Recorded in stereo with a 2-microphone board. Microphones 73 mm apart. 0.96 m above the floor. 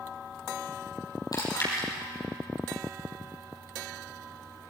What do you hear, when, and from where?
1.3 s chewing: 55° left (ahead or behind), 5 m